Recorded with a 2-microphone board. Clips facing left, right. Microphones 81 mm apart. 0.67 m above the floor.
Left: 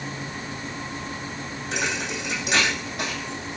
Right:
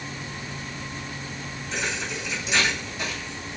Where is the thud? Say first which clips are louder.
Left 2 dB; 75° left (ahead or behind), 2.5 m.